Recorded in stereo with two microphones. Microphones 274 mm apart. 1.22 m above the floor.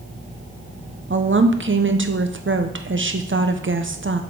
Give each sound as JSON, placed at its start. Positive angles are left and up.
{"t": 1.1, "sound": "a woman speaking", "side_deg": -45, "distance_m": 0.7}